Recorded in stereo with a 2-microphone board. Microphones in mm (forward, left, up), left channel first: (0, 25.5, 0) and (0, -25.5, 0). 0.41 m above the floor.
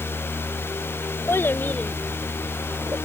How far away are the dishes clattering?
I don't hear dishes clattering.